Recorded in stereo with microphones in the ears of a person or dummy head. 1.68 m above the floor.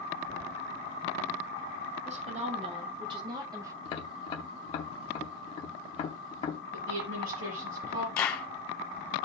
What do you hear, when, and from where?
2.0 s a woman speaking: 35° right (ahead or behind), 2.5 m; by 3.7 s 15° right (ahead or behind), 1.9 m
3.9 s tapping: 45° left (ahead or behind), 0.9 m
6.7 s a woman speaking: 75° right (ahead or behind), 6 m
8.2 s a clap: 25° left (ahead or behind), 1.0 m